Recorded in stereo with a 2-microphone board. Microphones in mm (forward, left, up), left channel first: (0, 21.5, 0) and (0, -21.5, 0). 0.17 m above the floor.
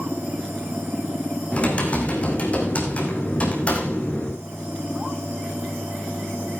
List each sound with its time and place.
1.5 s typing on a keyboard: 35° left (ahead or behind), 3 m